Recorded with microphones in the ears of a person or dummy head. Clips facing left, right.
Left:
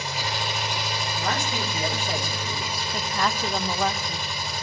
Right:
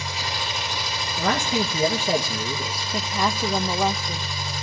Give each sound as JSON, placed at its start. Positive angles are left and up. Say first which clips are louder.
{"t": 0.0, "sound": "an engine running", "louder": "left 1 dB", "side_deg": 35, "distance_m": 5.5}
{"t": 1.2, "sound": "a man speaking", "louder": "right 7 dB", "side_deg": -55, "distance_m": 1.2}
{"t": 2.9, "sound": "a woman speaking", "louder": "right 2 dB", "side_deg": -15, "distance_m": 0.5}